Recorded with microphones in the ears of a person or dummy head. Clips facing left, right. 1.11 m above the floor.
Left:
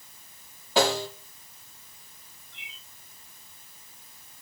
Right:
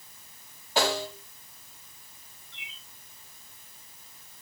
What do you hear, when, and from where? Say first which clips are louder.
0.8 s a snare drum: left 3 dB; 75° left (ahead or behind), 6 m
2.5 s a bird: even; 55° right (ahead or behind), 8.5 m